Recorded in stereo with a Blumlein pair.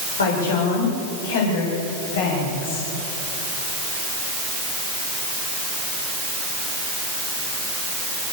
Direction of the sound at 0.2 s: 70° left.